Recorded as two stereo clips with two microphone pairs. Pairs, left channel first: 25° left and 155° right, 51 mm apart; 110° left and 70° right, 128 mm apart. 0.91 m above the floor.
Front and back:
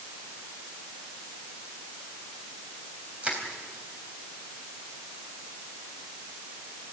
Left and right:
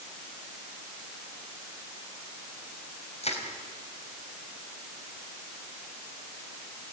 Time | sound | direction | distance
3.2 | crushing | 140° left | 4 m